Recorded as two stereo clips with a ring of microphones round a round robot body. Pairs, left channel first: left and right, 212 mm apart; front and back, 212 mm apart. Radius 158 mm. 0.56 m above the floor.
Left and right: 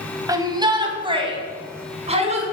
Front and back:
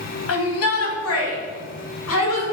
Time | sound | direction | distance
0.3 | a shout | 15° right | 3 m